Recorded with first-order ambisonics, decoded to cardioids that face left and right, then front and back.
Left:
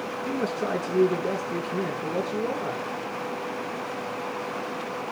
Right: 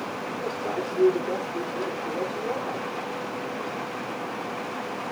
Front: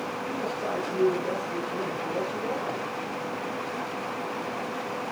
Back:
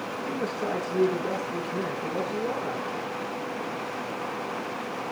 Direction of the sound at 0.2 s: 100° left.